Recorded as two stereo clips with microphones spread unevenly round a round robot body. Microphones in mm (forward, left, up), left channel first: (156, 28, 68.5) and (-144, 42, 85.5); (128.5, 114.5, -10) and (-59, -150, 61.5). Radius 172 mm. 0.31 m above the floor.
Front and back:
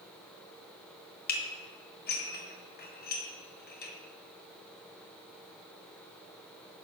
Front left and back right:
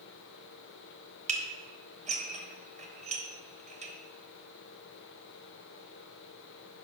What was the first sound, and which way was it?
Dishes clattering, 50° right.